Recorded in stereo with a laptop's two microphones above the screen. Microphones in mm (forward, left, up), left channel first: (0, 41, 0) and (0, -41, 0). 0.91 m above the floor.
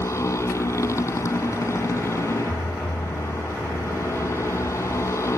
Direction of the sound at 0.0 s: 35° left (ahead or behind).